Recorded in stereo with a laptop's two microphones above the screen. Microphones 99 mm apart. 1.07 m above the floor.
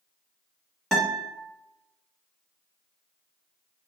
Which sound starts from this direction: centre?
A guitar, at 0.9 s.